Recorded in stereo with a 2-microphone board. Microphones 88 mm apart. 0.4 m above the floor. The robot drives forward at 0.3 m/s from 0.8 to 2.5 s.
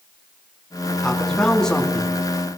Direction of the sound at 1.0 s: 5° left (ahead or behind).